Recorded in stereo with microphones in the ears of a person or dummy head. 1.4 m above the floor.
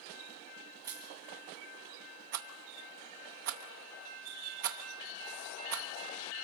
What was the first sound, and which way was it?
Crushing, 20° right (ahead or behind).